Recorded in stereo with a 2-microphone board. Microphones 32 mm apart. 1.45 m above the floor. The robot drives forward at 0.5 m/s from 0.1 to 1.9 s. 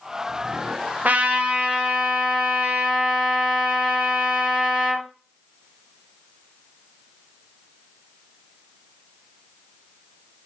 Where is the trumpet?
50° right (ahead or behind), 0.5 m; by 5.1 s 30° right (ahead or behind), 0.8 m.